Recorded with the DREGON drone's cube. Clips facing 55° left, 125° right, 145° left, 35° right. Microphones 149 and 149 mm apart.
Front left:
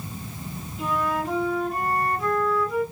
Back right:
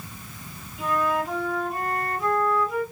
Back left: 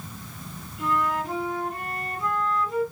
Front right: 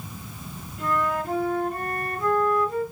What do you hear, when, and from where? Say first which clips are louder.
0.8 s a flute: back right 1 dB, even; 40° right, 2 m